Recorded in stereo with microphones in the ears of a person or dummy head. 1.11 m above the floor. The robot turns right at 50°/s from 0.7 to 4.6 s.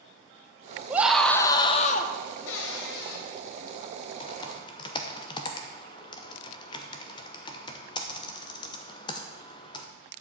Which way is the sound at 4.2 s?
25° left (ahead or behind).